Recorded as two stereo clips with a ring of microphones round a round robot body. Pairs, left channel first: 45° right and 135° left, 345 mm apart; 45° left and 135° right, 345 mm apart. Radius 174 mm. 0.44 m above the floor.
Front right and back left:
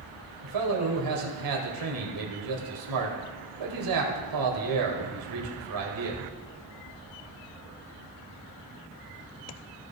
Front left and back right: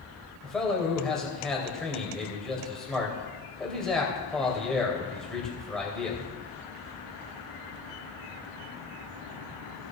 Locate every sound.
0.4 s a man speaking: 135° left, 2.5 m